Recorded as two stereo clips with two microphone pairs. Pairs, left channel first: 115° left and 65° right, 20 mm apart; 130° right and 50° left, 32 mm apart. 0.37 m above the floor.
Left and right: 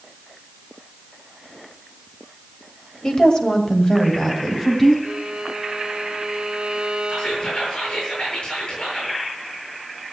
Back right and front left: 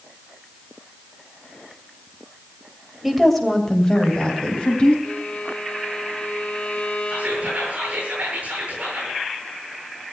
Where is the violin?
95° right, 2.5 m.